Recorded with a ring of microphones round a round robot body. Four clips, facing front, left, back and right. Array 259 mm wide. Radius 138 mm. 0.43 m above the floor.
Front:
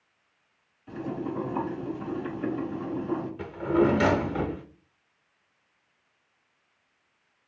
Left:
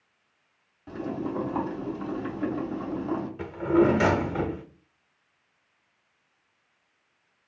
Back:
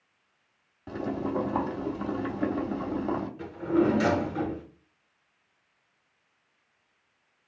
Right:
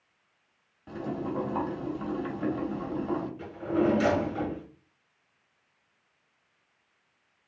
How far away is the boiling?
About 1.0 m.